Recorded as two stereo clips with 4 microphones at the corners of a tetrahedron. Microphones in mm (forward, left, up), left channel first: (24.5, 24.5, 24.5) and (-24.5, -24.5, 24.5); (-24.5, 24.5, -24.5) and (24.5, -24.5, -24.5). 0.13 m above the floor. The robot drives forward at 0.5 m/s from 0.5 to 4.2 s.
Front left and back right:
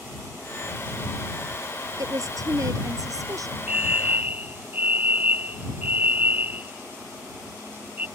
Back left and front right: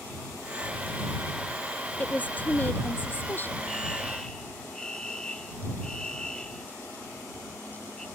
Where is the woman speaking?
160° right; by 3.6 s 165° right.